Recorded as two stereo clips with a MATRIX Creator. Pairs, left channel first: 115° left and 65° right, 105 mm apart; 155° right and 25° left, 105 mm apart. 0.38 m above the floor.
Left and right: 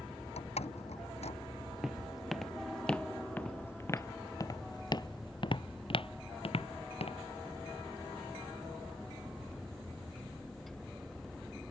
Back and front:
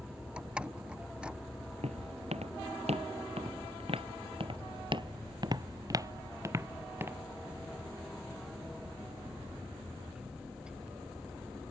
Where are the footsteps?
15° left; by 7.2 s 90° left.